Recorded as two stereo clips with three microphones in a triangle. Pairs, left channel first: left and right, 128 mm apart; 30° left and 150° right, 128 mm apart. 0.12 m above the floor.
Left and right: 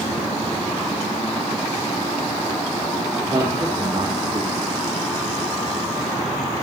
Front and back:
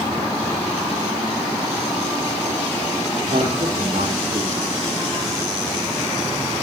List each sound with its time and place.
3.2 s a man speaking: 140° right, 4.5 m